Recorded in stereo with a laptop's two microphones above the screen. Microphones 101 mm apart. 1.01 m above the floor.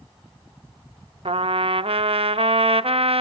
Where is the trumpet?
70° right (ahead or behind), 0.7 m.